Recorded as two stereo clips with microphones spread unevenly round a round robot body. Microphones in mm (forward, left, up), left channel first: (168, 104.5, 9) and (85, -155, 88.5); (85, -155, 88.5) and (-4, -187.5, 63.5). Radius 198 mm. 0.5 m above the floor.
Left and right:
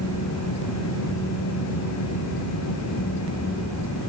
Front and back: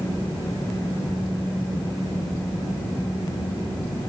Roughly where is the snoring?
I don't hear snoring.